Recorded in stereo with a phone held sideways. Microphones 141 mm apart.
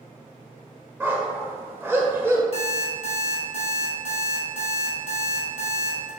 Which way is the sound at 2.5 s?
45° left (ahead or behind).